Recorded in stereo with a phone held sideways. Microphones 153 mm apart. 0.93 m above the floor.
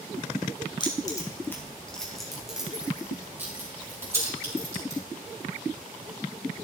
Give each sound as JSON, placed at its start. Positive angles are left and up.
{"t": 0.8, "sound": "keys jangling", "side_deg": 30, "distance_m": 2.5}